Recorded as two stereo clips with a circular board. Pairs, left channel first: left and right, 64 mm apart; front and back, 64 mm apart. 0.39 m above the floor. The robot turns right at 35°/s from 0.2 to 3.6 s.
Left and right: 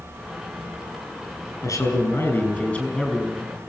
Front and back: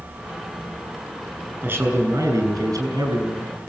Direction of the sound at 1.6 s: 120° left.